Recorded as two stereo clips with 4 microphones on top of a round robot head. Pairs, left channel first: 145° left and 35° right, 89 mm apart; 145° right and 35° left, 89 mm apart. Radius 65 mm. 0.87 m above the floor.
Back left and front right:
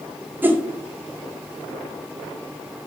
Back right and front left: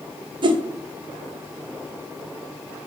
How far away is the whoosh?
About 0.5 m.